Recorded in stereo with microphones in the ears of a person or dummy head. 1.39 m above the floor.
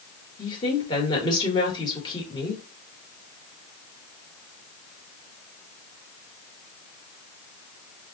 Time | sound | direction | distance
0.4 | a woman speaking | 30° left (ahead or behind) | 1.9 m